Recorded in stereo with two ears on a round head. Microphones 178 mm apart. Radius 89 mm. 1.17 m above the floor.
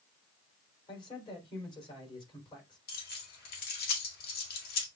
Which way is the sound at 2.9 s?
50° left (ahead or behind).